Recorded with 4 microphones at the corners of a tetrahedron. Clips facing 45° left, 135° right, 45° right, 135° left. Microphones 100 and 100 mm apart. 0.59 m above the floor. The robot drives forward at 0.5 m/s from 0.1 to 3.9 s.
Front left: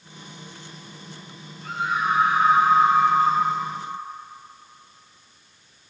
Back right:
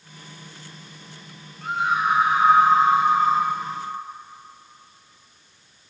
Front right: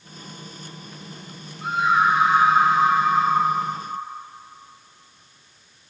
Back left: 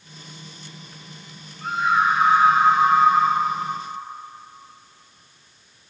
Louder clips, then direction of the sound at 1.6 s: Back right 3 dB, front right 1 dB; 120° right.